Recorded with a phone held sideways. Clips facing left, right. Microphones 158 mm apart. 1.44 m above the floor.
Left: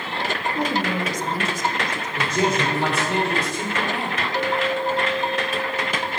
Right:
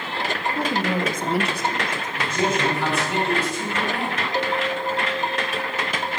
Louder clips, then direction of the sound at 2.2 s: Left 1 dB; 40° left (ahead or behind).